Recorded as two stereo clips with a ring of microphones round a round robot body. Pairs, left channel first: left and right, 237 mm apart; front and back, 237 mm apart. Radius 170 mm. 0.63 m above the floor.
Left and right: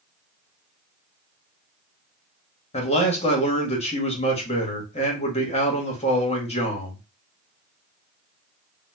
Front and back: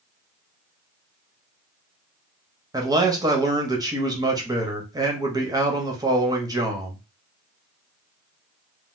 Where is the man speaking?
120° left, 1.0 m.